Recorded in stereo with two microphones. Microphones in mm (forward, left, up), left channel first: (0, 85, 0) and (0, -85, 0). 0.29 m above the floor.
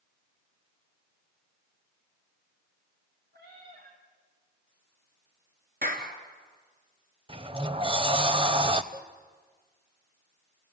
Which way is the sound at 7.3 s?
35° right (ahead or behind).